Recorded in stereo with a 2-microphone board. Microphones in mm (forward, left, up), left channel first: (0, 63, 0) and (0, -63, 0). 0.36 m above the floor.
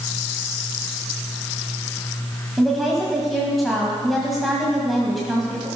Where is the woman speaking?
Centre (ahead or behind), 2 m.